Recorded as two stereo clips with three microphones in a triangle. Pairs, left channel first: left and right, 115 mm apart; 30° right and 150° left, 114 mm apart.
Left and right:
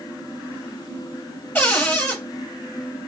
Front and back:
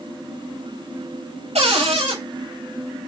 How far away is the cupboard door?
About 5.5 m.